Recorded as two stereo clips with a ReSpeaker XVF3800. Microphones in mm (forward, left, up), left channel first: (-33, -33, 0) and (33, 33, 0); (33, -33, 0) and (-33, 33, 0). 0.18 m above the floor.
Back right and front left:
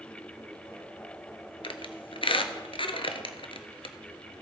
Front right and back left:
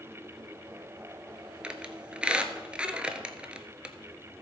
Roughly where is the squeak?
Behind right.